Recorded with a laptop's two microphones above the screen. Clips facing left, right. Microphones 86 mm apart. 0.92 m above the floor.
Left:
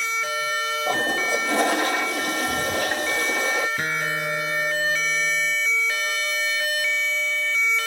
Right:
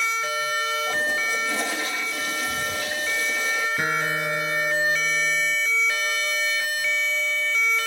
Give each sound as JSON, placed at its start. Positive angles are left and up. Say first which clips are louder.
{"t": 0.9, "sound": "a toilet flushing", "louder": "left 2 dB", "side_deg": 60}
{"t": 3.8, "sound": "a guitar", "louder": "right 1 dB", "side_deg": -10}